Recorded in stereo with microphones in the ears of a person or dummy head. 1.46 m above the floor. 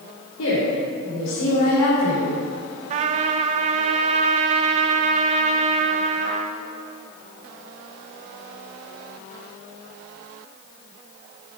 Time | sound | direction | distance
0.4 | a woman speaking | 80° left | 4 m
2.9 | a trumpet | 40° right (ahead or behind) | 0.9 m